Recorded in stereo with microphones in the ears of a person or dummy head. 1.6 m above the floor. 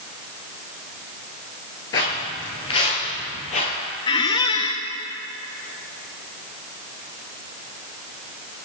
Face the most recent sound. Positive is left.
turn(degrees=20)  # may be behind; listen again after turning